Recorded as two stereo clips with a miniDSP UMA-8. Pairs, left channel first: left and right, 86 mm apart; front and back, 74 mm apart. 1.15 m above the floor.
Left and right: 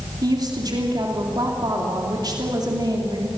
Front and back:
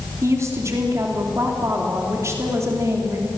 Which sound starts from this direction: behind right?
A woman speaking, at 0.2 s.